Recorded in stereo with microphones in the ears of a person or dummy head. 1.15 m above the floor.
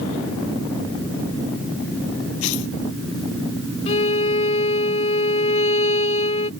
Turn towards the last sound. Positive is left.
turn(degrees=30)  # may be behind; listen again after turning